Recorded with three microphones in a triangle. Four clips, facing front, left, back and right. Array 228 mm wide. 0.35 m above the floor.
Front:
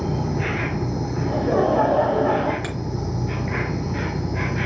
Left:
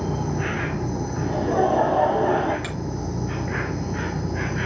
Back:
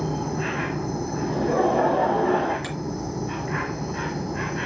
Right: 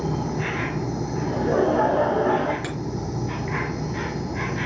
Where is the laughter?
15° right, 3.5 m.